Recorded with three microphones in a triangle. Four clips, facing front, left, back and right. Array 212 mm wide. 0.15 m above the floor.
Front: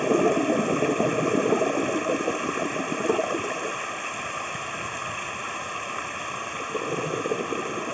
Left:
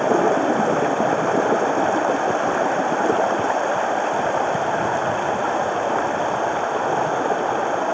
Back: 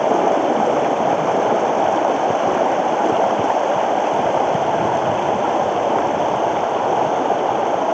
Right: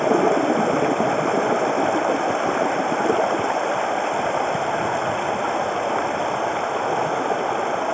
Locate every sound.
0.0 s running water: 175° left